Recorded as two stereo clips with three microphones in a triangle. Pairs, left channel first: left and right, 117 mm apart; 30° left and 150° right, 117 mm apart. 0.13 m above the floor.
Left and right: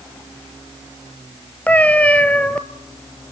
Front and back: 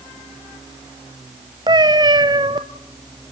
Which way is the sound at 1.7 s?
165° left.